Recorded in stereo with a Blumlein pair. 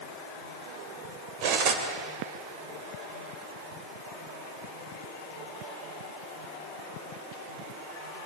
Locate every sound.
1.4 s cutlery clinking: 45° right, 3 m